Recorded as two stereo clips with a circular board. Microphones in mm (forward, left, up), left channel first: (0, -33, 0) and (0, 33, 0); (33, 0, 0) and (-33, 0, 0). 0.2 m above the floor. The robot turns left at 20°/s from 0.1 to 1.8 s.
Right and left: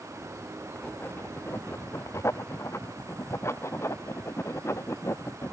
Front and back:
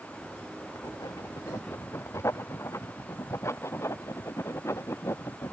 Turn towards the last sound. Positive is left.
turn(degrees=-45)